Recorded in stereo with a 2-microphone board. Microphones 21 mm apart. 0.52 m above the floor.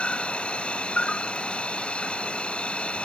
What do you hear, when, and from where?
0.0 s an insect: 65° left (ahead or behind)